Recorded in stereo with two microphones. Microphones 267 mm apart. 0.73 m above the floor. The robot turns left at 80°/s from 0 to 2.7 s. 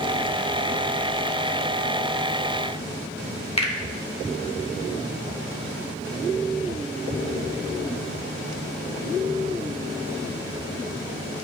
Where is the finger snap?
20° left (ahead or behind), 1.0 m.